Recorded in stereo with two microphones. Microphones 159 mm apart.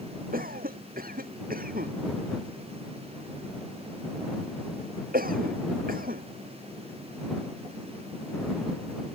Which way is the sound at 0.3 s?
65° right (ahead or behind).